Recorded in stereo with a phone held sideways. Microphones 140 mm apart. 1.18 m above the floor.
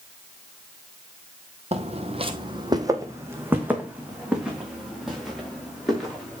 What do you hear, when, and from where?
1.7 s footsteps: 50° right (ahead or behind), 1.7 m; by 6.4 s centre (ahead or behind), 7 m